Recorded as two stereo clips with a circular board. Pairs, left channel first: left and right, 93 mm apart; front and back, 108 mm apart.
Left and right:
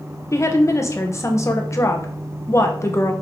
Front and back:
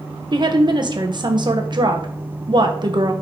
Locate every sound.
0.3 s a woman speaking: 140° left, 1.1 m